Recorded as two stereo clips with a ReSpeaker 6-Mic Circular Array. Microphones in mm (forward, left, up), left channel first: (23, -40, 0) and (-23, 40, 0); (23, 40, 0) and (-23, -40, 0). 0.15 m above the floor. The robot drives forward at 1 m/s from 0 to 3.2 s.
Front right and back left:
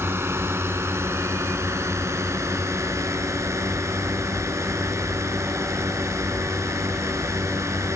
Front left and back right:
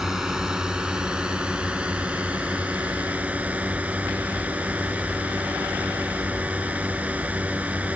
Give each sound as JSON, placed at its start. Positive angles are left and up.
{"t": 0.0, "sound": "a drone", "azimuth_deg": 160}